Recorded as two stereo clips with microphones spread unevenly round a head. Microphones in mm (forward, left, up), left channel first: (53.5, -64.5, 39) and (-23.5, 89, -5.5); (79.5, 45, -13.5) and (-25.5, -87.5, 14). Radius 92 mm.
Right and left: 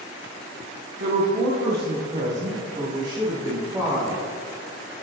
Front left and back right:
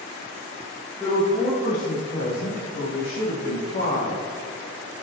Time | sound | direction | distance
1.0 | a woman speaking | 135° left | 1.0 m